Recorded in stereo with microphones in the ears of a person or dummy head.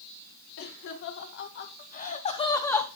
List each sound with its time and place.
0.6 s laughter: 75° left (ahead or behind), 2 m; by 2.9 s 5° left (ahead or behind), 1.1 m